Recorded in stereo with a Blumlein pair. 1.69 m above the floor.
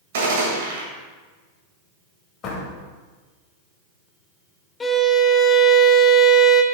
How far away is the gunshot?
About 1.9 m.